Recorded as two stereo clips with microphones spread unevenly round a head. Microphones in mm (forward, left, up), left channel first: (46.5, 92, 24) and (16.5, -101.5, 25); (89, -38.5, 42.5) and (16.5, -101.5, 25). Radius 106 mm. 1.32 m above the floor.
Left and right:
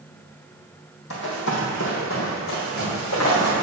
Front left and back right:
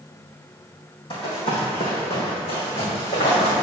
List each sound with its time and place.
1.1 s running footsteps: 60° left, 2.5 m; by 3.6 s 80° left, 3.5 m